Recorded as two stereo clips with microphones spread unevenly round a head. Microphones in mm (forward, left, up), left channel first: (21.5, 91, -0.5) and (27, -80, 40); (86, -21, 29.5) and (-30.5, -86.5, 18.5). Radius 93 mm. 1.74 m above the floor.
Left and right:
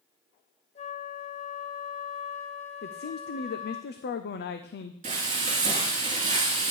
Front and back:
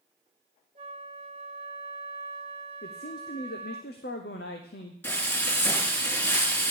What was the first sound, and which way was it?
A flute, 155° left.